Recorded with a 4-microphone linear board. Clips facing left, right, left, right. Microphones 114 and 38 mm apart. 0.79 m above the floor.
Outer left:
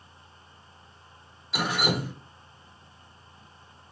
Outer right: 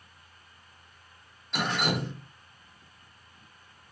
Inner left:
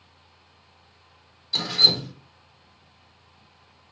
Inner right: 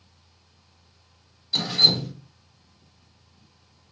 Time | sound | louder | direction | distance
1.5 | dripping | outer left 1 dB, even | 5° left (ahead or behind) | 0.9 m